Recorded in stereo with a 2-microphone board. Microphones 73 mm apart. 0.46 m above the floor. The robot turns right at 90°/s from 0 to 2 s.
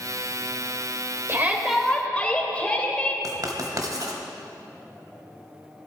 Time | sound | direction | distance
1.3 | a shout | 45° right | 2 m
3.2 | writing | 60° right (ahead or behind) | 1.5 m